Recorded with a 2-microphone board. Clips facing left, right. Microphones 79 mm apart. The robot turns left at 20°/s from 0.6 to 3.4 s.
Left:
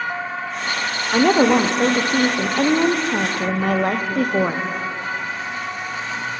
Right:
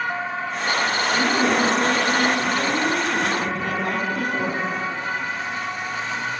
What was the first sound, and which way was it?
A woman speaking, 115° left.